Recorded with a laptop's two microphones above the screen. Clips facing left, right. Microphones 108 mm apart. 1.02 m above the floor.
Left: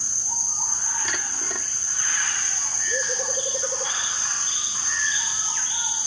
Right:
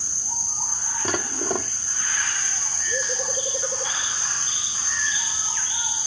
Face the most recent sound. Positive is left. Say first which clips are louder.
# right 7 dB
turn(degrees=-45)  # may be behind; listen again after turning